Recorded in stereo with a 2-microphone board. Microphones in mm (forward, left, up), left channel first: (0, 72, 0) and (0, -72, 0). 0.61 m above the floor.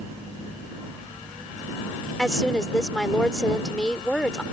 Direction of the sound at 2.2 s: 5° left (ahead or behind).